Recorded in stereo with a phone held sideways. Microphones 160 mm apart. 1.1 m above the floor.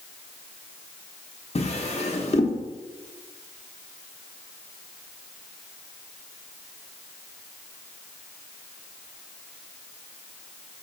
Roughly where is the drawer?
Left.